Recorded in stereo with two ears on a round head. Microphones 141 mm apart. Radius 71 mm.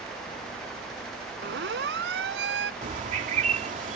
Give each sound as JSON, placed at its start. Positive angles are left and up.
{"t": 1.4, "sound": "a siren", "side_deg": -80}
{"t": 2.8, "sound": "a bird", "side_deg": -50}